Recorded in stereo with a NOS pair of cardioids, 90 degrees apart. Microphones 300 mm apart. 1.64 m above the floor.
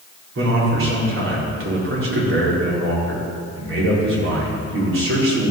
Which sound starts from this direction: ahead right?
A man speaking, at 0.3 s.